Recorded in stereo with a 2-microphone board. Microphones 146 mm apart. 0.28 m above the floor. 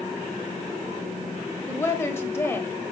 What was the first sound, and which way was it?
A woman speaking, 15° left (ahead or behind).